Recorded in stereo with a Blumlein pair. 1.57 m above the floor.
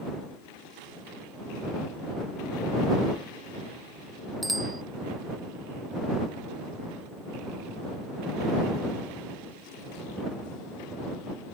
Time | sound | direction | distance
4.4 | a bicycle bell | 5° right | ?